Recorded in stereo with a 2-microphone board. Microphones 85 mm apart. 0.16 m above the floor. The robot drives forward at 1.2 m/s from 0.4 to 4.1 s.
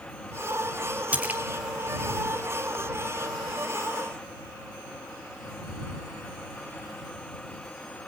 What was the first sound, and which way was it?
A splash, 20° right (ahead or behind).